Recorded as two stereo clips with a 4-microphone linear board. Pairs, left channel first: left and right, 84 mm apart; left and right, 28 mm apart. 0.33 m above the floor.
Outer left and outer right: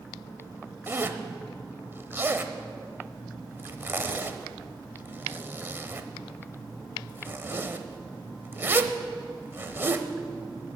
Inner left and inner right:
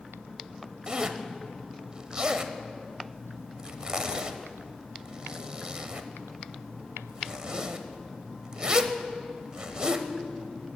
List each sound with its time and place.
0.9 s a zipper: 25° right (ahead or behind), 0.9 m